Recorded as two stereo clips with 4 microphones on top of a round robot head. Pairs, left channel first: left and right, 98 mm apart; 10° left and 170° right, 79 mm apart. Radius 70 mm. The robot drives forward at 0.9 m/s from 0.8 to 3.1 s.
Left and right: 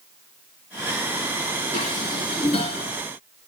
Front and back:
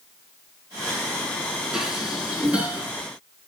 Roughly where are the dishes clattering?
Left.